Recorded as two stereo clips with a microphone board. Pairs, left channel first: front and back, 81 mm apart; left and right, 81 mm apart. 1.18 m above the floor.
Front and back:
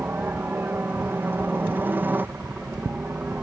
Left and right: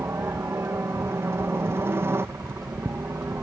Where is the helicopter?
130° right.